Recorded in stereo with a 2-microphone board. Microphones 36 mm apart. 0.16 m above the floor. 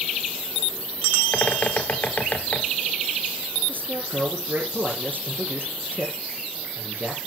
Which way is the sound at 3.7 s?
55° right (ahead or behind).